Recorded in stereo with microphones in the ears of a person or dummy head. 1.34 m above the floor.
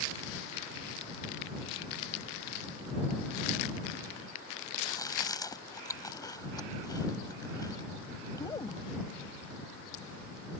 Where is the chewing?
20° left (ahead or behind).